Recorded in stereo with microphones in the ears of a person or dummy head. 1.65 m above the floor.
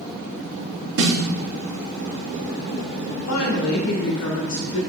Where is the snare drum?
60° right (ahead or behind), 3 m.